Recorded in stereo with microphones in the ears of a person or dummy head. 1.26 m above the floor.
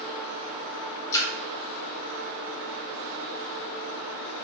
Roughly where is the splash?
Centre.